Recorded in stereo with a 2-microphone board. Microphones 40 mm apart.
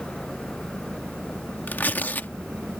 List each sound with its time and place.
0.0 s an engine running: 45° right (ahead or behind)
1.7 s tearing paper: 50° left (ahead or behind)